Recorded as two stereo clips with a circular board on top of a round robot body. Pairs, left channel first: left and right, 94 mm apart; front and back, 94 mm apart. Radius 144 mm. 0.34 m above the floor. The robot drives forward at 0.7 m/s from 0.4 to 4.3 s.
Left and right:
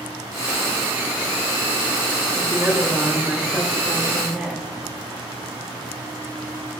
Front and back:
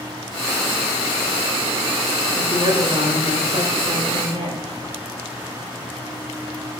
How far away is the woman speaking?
About 1.7 m.